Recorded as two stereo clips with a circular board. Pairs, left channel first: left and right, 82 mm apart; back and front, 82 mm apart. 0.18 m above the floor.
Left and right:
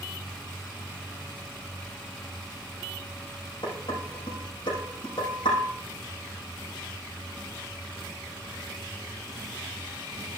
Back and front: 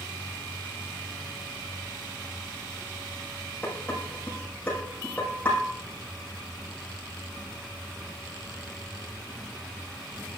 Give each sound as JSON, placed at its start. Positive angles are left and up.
{"t": 3.6, "sound": "dishes clattering", "azimuth_deg": 110, "distance_m": 6.0}